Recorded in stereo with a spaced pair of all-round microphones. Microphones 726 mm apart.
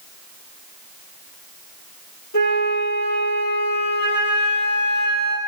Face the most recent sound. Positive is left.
turn(degrees=20)  # may be behind; listen again after turning